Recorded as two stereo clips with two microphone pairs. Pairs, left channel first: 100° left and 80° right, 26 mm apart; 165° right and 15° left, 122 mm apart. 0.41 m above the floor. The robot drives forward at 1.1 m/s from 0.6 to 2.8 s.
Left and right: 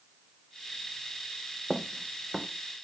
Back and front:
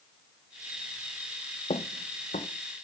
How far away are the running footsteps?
About 0.8 m.